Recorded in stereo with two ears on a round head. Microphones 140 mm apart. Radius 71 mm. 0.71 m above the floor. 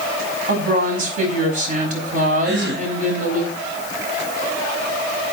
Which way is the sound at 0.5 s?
55° right (ahead or behind).